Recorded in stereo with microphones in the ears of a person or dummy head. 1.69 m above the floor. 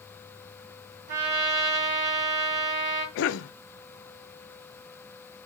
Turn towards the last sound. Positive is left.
turn(degrees=65)  # may be behind; listen again after turning